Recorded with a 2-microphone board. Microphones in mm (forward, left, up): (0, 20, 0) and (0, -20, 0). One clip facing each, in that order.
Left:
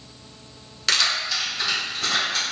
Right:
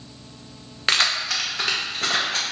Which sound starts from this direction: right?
Keys jangling, at 0.9 s.